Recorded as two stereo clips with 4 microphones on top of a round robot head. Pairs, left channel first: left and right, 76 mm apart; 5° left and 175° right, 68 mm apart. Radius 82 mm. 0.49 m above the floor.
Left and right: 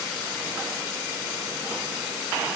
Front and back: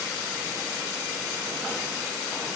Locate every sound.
Only background noise.